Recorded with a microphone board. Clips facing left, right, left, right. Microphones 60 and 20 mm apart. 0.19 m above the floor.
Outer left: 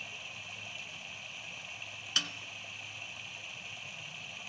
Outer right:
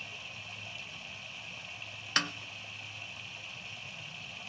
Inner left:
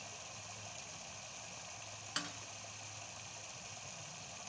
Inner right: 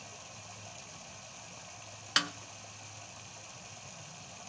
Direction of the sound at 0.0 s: 5° left (ahead or behind).